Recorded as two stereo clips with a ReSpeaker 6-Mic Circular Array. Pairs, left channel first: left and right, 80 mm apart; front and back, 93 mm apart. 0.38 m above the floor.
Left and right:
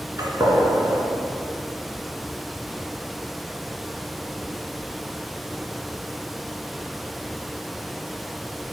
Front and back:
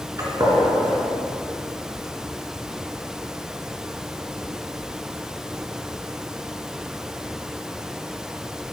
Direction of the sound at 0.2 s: 130° right.